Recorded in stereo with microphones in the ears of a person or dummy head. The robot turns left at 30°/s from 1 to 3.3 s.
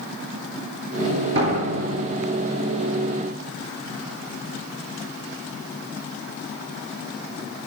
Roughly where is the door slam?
Right.